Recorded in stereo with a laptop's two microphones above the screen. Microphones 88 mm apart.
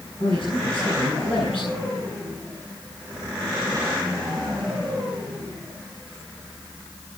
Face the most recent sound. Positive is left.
turn(degrees=70)  # may be behind; listen again after turning